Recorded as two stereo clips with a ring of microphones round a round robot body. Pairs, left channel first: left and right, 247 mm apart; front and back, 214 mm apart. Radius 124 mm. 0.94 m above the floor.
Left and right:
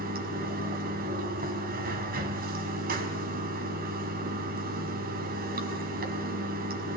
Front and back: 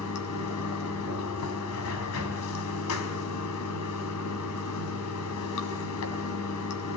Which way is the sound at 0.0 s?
35° right.